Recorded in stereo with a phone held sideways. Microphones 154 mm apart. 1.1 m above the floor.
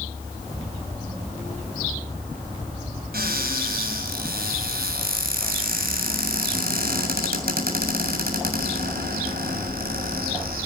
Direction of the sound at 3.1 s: 85° right.